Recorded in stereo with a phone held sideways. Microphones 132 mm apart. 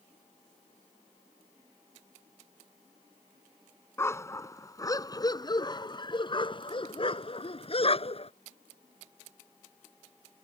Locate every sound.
4.0 s a dog barking: 20° left (ahead or behind); by 8.3 s 50° left (ahead or behind)